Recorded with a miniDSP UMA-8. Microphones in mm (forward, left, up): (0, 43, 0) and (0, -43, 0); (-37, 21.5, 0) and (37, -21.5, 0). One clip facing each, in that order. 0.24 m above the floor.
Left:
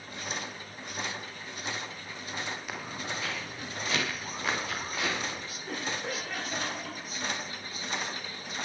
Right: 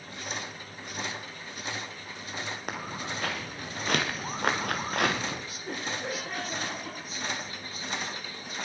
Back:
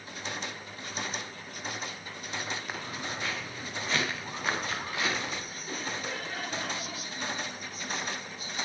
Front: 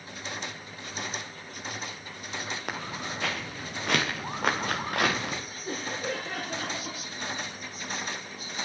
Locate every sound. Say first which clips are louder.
2.7 s footsteps: right 2 dB, front 2 dB; 55° right, 4.5 m; by 5.4 s 65° right, 2 m
5.7 s laughter: right 1 dB, front 4 dB; 40° right, 6 m